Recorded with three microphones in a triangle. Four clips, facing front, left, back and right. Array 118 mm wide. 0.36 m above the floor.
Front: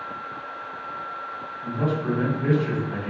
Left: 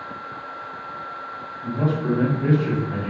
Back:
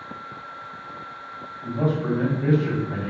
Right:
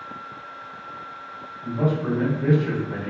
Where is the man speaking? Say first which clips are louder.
Even, back 1 dB; straight behind, 1.9 m.